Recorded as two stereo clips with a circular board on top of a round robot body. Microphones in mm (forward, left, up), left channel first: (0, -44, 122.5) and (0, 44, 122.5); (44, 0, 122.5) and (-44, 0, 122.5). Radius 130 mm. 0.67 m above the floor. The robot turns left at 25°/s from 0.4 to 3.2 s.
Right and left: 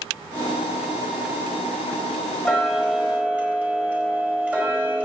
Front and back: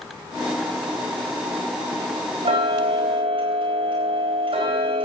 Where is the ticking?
Straight behind, 4.5 m; by 5.1 s 165° left, 4.5 m.